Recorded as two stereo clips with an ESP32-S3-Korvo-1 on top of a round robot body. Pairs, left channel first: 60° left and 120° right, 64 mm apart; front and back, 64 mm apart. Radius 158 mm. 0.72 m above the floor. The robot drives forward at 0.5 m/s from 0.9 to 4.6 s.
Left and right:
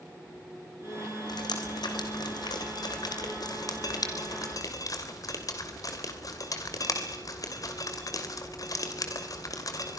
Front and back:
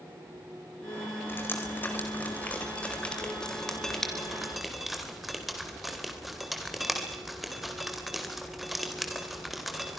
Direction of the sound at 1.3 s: 60° left.